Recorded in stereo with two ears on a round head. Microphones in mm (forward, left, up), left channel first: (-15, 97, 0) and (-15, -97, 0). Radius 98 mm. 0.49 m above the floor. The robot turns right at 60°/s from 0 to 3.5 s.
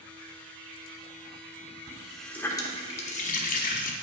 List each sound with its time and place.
1.9 s a running tap: 20° right, 0.6 m; by 3.9 s 80° left, 0.6 m